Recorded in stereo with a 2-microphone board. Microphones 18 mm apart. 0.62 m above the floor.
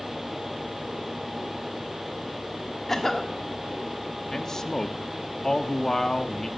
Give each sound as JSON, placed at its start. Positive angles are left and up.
{"t": 2.9, "sound": "a cough", "side_deg": 20, "distance_m": 1.6}
{"t": 4.3, "sound": "a man speaking", "side_deg": 30, "distance_m": 0.8}